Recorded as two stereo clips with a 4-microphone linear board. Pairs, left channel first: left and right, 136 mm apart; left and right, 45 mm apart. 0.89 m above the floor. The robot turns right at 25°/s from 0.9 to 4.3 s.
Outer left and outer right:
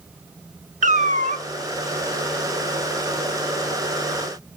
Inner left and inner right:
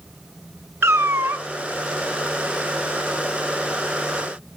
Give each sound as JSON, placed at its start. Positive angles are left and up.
{"t": 0.8, "sound": "a cat meowing", "side_deg": -60, "distance_m": 0.6}